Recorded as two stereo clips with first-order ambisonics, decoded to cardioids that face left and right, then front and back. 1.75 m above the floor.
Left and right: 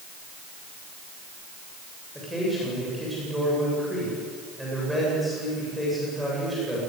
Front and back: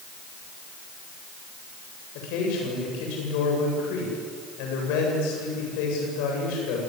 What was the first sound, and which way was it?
A man speaking, straight ahead.